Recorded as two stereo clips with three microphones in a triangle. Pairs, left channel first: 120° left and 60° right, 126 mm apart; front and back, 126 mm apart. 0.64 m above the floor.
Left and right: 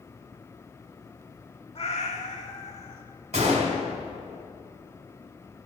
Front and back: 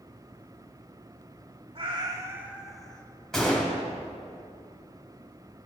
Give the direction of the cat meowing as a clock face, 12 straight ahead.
7 o'clock.